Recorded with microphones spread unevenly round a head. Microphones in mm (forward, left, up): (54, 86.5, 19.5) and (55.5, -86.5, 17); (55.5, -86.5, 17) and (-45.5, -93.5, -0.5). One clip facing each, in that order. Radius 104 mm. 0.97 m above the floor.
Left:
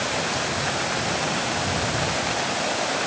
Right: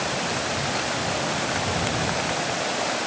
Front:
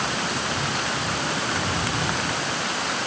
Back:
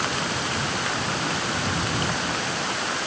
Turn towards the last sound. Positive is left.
No sound to turn to.